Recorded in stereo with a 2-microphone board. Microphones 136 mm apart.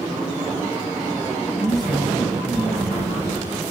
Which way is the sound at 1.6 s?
Centre (ahead or behind).